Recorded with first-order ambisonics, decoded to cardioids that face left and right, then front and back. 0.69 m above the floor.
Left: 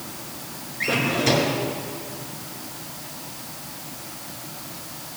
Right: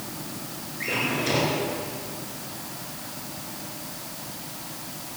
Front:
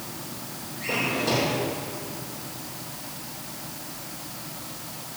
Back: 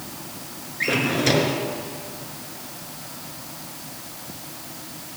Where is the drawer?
160° left, 2 m.